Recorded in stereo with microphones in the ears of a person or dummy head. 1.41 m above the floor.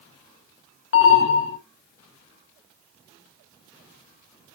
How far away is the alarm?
About 0.7 m.